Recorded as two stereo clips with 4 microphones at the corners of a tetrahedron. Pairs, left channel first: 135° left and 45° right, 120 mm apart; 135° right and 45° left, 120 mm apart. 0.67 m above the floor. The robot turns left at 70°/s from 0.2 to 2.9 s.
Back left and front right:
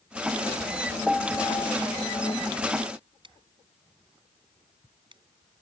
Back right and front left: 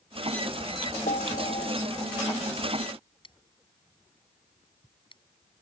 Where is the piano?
130° right; by 2.4 s 135° left.